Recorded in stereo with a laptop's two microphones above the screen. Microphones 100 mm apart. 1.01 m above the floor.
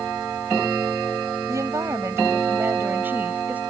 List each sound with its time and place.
1.5 s a woman speaking: 30° right (ahead or behind); by 3.6 s 15° right (ahead or behind)